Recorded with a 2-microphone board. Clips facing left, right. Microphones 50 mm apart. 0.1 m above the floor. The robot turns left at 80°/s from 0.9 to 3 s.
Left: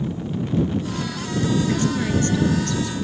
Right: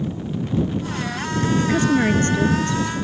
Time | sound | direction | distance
1.6 | a woman speaking | 55° right | ?